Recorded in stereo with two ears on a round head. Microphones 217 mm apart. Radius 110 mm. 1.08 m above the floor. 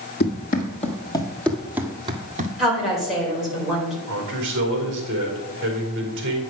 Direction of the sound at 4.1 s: 50° right (ahead or behind).